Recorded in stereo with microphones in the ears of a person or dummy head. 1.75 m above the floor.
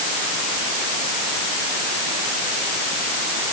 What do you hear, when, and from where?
Only background noise.